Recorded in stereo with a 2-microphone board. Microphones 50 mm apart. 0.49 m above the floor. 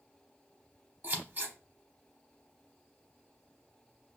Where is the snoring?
I don't hear snoring.